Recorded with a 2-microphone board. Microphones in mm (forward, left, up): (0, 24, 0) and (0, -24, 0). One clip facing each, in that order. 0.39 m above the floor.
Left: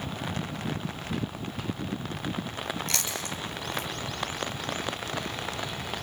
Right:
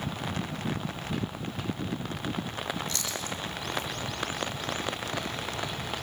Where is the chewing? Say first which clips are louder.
Left 1 dB; 80° left, 4.5 m.